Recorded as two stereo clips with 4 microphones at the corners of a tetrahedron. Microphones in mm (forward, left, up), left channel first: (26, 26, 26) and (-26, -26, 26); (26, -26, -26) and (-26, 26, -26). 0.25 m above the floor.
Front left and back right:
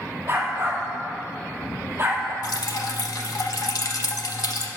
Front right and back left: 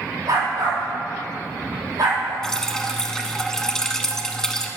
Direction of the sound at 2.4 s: 35° left.